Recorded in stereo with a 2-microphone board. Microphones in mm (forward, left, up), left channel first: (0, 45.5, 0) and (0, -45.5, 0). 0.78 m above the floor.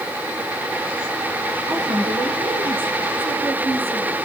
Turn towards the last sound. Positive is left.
turn(degrees=-30)  # may be behind; listen again after turning